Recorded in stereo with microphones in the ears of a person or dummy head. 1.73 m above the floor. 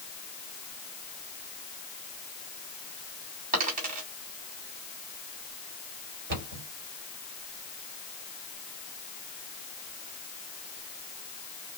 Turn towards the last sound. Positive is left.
turn(degrees=-65)  # may be behind; listen again after turning